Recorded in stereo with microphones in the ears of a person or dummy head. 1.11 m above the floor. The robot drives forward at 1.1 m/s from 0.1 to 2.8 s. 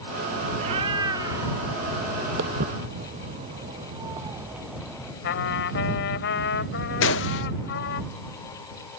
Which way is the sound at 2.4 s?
50° right (ahead or behind).